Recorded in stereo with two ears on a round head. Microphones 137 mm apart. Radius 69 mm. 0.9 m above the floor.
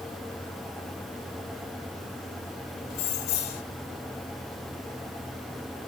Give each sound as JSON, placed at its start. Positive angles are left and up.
{"t": 2.9, "sound": "keys jangling", "side_deg": 65, "distance_m": 2.0}